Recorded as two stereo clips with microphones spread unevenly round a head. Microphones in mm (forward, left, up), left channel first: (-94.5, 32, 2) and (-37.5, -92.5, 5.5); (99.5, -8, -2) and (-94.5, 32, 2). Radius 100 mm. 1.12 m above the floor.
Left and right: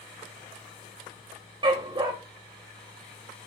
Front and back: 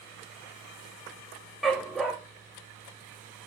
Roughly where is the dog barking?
Right.